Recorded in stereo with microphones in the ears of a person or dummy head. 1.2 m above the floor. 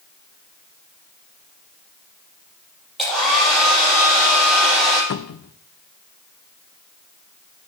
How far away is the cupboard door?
About 0.5 m.